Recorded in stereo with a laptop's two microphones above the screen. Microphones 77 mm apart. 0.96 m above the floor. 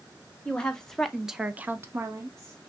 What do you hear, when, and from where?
0.5 s a woman speaking: 10° left (ahead or behind), 1.3 m; by 2.6 s 40° right (ahead or behind), 0.9 m